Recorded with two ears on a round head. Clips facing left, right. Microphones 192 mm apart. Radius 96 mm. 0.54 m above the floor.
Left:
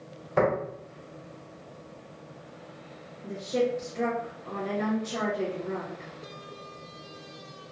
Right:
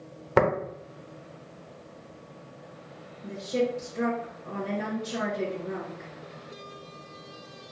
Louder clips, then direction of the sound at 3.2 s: Even; 25° right (ahead or behind).